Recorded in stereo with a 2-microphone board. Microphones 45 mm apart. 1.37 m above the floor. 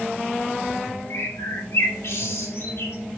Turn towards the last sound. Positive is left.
turn(degrees=75)  # may be behind; listen again after turning